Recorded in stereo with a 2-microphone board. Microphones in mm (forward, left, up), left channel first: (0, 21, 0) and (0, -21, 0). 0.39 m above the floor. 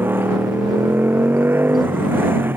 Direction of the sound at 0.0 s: 60° right (ahead or behind).